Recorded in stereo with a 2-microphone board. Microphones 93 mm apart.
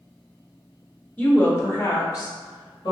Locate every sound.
1.2 s a woman speaking: 15° left (ahead or behind), 1.1 m; by 2.9 s 55° left (ahead or behind), 1.8 m